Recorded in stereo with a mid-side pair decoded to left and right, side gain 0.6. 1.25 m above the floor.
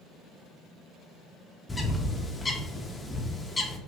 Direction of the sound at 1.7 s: 15° left.